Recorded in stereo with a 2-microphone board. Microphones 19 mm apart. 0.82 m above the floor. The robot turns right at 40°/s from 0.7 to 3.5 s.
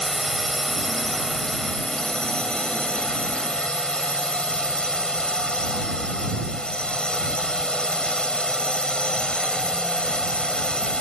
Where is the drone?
Straight ahead; by 11.0 s 115° left.